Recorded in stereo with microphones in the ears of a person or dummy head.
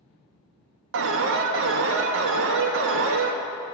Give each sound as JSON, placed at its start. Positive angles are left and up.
{"t": 0.9, "sound": "an alarm", "side_deg": -60, "distance_m": 1.0}